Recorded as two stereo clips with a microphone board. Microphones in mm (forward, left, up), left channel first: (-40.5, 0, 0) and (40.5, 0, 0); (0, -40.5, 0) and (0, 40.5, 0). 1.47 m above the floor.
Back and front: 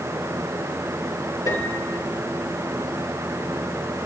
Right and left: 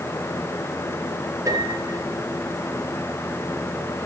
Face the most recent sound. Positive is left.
turn(degrees=135)